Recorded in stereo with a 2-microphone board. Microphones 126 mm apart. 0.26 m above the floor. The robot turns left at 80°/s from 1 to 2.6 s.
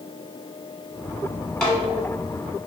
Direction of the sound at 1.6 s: 5° left (ahead or behind).